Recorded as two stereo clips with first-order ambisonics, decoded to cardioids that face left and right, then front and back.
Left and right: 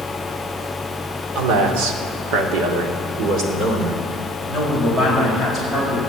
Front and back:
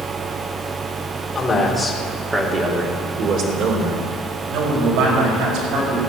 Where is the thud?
No thud in this recording.